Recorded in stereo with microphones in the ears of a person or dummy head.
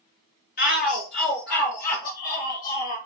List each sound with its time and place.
0.6 s a shout: 45° left (ahead or behind), 0.8 m; by 3.0 s 50° left (ahead or behind), 2.5 m